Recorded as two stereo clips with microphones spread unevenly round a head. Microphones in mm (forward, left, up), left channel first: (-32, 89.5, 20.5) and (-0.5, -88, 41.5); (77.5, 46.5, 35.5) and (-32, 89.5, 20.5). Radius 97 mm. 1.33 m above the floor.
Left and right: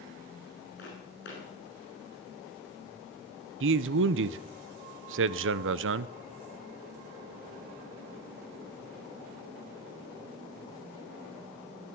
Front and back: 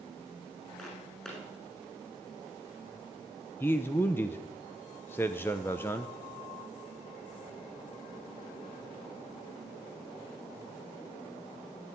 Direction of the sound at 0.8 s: 60° left.